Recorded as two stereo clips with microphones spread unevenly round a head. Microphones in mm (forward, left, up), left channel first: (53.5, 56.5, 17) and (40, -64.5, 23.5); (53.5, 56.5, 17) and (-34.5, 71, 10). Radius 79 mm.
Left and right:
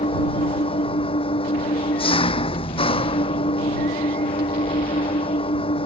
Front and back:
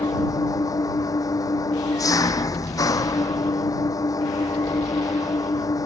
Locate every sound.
0.0 s an engine running: 40° left